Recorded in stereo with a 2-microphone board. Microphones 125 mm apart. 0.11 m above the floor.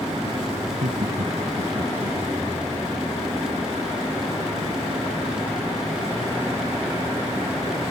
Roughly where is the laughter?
Right.